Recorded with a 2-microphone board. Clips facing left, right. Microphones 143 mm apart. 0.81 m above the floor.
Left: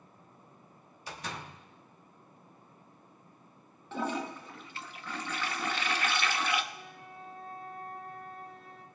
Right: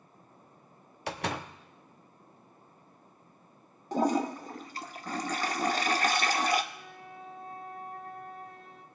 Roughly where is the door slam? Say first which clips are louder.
Right 8 dB; right.